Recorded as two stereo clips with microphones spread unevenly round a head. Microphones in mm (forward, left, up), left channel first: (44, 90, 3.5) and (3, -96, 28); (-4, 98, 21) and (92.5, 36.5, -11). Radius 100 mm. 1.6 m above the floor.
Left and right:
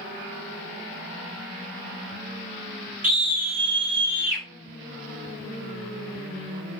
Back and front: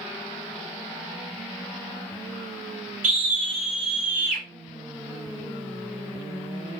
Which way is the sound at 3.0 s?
55° right.